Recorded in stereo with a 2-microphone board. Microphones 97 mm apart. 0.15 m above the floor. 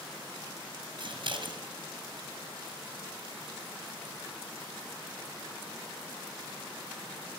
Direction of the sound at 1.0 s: 65° right (ahead or behind).